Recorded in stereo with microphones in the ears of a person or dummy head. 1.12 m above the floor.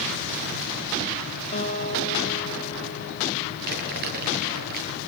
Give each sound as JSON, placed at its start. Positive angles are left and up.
{"t": 1.5, "sound": "a guitar", "side_deg": 35, "distance_m": 2.5}
{"t": 3.7, "sound": "crumpling", "side_deg": -55, "distance_m": 9.5}